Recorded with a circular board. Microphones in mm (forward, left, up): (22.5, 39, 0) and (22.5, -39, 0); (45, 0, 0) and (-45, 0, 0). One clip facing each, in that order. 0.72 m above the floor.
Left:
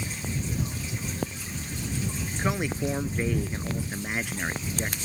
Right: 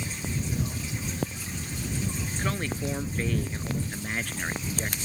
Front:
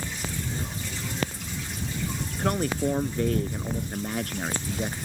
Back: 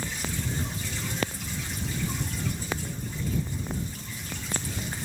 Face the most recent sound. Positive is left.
turn(degrees=10)